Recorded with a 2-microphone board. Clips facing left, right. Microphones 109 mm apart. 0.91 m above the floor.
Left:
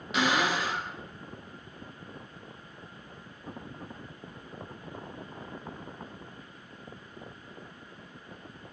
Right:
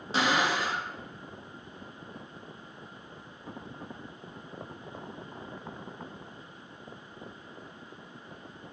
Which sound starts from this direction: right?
A cupboard door, at 0.1 s.